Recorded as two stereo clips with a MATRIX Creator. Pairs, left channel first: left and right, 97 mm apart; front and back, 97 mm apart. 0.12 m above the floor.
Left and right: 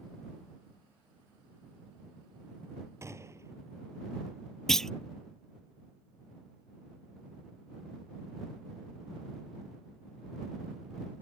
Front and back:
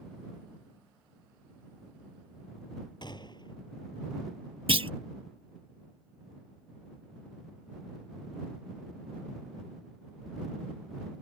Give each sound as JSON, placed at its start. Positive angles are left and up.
{"t": 3.0, "sound": "a gunshot", "azimuth_deg": -30}
{"t": 4.7, "sound": "a clunk", "azimuth_deg": 175}